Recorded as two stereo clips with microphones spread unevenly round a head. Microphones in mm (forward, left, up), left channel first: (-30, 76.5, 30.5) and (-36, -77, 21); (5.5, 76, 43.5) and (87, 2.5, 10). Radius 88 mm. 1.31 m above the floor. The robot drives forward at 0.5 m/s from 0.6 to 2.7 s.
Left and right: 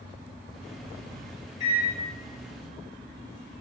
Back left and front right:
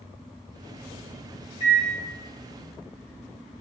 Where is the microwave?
120° left, 1.5 m; by 1.9 s 125° left, 1.6 m.